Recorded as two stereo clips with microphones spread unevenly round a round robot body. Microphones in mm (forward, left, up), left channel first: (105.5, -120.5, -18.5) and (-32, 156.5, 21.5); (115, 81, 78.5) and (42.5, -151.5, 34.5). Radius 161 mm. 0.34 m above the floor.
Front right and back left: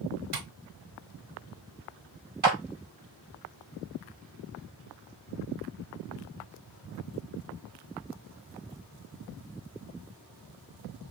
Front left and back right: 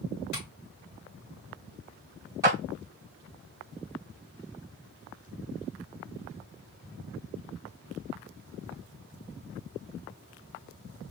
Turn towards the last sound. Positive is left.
turn(degrees=180)